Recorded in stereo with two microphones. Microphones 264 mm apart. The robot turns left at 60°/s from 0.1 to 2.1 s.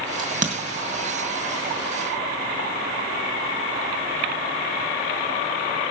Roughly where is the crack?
Centre.